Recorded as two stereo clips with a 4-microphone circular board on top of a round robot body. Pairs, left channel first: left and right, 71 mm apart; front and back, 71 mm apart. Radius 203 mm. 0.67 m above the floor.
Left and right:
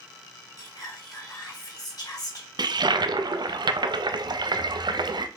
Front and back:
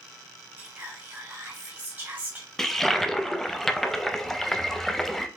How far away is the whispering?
About 2.5 m.